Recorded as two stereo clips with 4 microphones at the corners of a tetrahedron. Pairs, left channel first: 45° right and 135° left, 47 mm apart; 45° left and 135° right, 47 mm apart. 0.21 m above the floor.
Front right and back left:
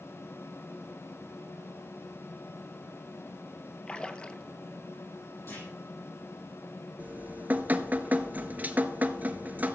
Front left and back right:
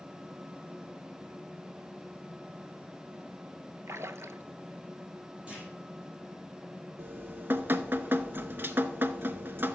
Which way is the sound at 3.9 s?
115° right.